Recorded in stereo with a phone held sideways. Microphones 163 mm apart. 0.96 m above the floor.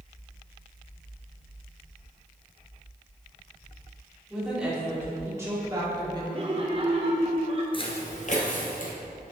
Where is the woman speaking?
5° right (ahead or behind), 2.5 m; by 6.2 s 30° right (ahead or behind), 2 m.